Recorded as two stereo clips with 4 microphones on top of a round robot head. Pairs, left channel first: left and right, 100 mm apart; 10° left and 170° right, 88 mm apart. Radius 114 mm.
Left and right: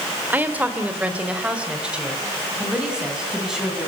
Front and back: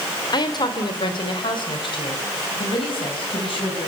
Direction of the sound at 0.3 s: 20° right.